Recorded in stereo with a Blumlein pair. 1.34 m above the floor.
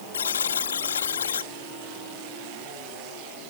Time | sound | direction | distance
0.1 | a buzzer | 70° left | ?